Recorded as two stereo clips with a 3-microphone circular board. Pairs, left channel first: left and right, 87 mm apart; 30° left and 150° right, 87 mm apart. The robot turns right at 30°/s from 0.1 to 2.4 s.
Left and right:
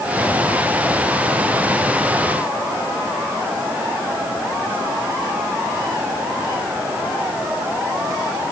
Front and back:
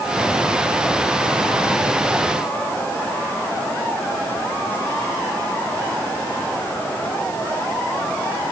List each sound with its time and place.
Only background noise.